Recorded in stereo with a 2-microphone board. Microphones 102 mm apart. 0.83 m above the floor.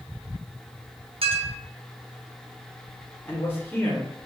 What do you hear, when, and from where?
1.2 s a clink: 65° right (ahead or behind), 0.6 m
3.2 s a man speaking: 20° left (ahead or behind), 0.7 m